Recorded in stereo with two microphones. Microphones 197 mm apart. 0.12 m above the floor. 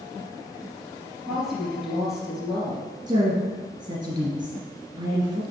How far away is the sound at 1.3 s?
About 2.5 m.